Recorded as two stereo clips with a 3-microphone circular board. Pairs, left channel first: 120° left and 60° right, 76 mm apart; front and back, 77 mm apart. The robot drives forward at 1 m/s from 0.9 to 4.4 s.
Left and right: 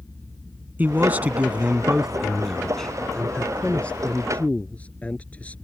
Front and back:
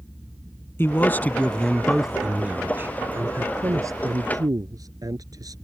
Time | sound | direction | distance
0.8 | a man speaking | 15° right | ?